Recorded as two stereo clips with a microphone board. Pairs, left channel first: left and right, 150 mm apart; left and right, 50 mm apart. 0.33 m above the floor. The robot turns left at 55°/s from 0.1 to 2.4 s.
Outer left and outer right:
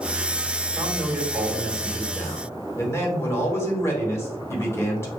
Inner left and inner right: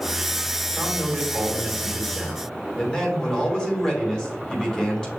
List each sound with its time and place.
0.7 s a man speaking: 20° right (ahead or behind), 1.3 m; by 5.1 s 15° left (ahead or behind), 1.3 m